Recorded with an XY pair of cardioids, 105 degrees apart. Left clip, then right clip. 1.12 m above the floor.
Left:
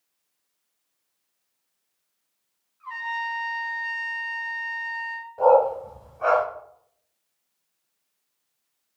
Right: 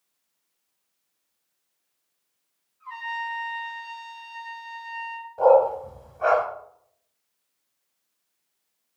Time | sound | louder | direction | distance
2.8 | a trumpet | left 2 dB | 40° left | 3.5 m
5.4 | a dog barking | even | 10° right | 2 m